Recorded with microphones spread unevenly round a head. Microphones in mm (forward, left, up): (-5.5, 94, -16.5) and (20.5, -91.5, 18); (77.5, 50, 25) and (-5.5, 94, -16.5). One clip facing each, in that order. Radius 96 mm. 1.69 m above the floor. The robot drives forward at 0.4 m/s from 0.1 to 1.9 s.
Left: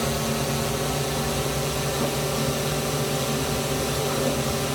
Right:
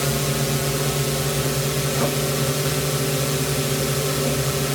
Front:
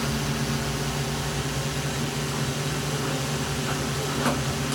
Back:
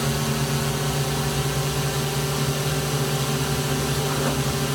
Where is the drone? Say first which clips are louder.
Right 2 dB, back 3 dB; 140° right; by 4.8 s 145° right.